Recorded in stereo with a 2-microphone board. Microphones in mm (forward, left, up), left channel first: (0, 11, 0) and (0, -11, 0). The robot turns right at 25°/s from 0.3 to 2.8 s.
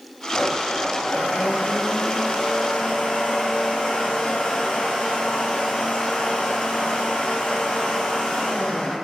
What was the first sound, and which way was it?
A blender, 60° left.